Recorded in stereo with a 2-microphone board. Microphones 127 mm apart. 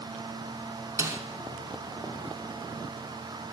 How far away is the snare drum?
About 1.1 m.